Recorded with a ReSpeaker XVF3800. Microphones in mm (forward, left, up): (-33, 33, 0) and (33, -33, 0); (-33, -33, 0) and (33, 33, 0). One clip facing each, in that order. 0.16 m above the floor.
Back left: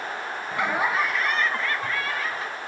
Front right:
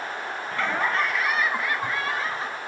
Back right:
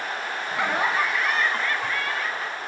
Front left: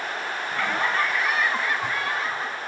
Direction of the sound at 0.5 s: 175° right.